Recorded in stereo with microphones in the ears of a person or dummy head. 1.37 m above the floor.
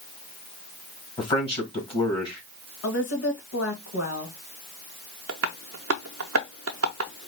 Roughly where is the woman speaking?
Left.